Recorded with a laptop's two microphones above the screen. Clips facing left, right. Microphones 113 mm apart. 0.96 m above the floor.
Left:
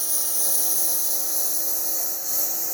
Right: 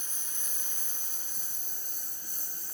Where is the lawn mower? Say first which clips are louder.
Left 12 dB; 80° left; by 2.8 s 85° left.